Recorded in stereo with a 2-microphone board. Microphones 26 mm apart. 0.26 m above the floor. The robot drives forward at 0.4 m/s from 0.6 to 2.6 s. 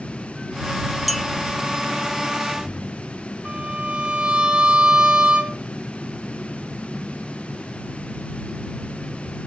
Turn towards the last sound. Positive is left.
turn(degrees=-40)  # may be behind; listen again after turning